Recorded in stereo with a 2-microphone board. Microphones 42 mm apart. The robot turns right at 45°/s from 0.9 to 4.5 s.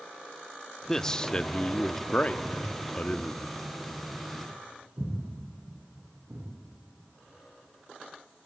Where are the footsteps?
55° left (ahead or behind), 6.5 m; by 6.5 s 80° right, 9 m.